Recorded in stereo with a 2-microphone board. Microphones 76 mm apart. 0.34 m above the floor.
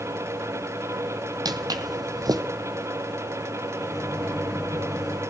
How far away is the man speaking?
No man speaking in this recording.